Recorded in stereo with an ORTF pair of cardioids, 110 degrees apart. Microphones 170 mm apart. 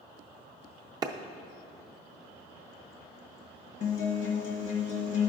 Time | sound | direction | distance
1.0 | a clap | 25° right | 0.5 m
3.8 | a guitar | 50° left | 1.0 m